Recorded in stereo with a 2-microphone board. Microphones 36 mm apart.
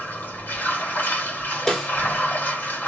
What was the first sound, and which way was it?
Running water, 60° left (ahead or behind).